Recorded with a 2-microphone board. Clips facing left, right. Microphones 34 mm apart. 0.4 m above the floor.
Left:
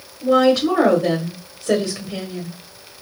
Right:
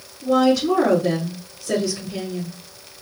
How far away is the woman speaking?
About 1.6 m.